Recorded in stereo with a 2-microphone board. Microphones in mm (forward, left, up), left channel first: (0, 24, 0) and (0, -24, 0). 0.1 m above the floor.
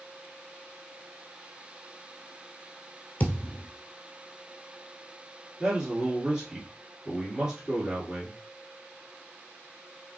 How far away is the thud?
About 1.0 m.